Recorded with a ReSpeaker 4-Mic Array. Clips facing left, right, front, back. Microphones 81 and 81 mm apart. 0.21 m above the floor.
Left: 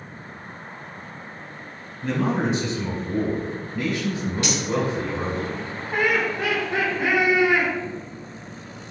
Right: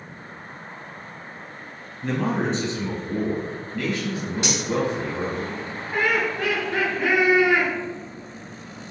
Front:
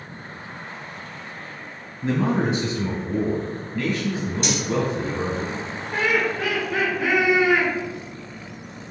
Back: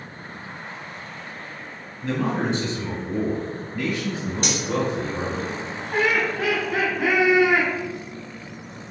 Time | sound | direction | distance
2.0 | a man speaking | 5° right | 1.5 m
4.4 | cutlery clinking | 155° right | 1.3 m
5.9 | laughter | 155° left | 1.2 m